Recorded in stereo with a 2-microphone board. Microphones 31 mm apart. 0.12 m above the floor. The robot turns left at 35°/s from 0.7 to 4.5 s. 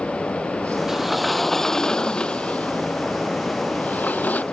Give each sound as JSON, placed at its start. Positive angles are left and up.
{"t": 0.9, "sound": "a sliding door", "azimuth_deg": -170}